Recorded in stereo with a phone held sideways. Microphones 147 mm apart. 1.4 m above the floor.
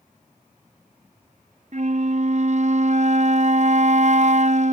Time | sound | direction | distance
1.7 | a flute | 55° right (ahead or behind) | ?